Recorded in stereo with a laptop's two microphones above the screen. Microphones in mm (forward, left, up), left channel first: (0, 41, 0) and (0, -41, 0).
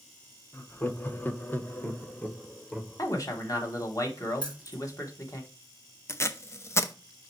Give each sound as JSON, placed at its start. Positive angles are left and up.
{"t": 0.5, "sound": "laughter", "side_deg": 20, "distance_m": 1.0}
{"t": 3.0, "sound": "a man speaking", "side_deg": 45, "distance_m": 1.3}
{"t": 4.4, "sound": "keys jangling", "side_deg": 60, "distance_m": 1.9}
{"t": 6.1, "sound": "tape being pulled", "side_deg": 35, "distance_m": 0.6}